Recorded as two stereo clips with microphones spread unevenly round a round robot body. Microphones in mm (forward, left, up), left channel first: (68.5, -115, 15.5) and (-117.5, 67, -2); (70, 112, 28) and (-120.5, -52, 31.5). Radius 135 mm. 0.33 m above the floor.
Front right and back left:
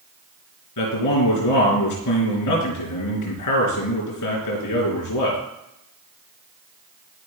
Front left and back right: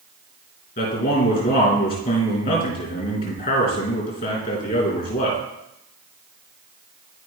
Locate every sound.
0.8 s a man speaking: 20° right, 3.5 m